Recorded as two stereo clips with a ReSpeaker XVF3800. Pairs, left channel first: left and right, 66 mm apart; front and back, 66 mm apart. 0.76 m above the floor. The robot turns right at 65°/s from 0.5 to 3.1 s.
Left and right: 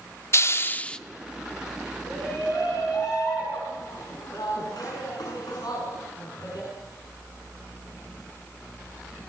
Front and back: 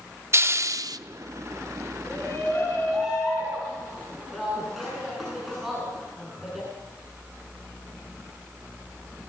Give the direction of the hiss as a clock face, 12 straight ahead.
8 o'clock.